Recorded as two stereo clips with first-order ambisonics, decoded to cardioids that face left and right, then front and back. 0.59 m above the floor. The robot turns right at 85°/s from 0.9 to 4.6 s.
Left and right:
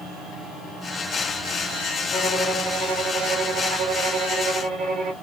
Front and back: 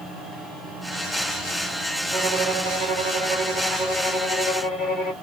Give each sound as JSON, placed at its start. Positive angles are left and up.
{"t": 2.1, "sound": "a violin", "azimuth_deg": 115, "distance_m": 1.7}